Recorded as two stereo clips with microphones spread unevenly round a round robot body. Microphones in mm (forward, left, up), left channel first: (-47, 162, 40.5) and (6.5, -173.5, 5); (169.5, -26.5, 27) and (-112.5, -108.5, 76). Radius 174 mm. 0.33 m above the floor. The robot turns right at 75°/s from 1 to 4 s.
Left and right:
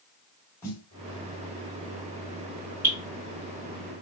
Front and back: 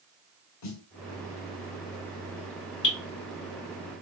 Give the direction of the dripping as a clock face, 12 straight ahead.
12 o'clock.